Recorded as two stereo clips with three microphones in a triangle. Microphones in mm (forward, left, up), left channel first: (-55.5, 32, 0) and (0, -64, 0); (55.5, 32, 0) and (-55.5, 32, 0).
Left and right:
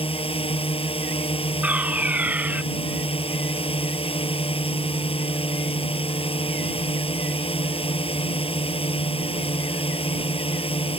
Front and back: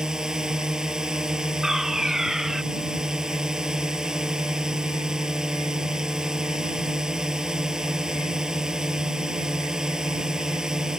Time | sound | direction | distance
0.0 | a drone | 95° left | ?
1.6 | a fire alarm | 105° right | ?